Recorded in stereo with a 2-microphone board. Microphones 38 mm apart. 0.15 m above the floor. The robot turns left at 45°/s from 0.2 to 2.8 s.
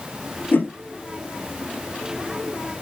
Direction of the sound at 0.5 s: 65° left (ahead or behind).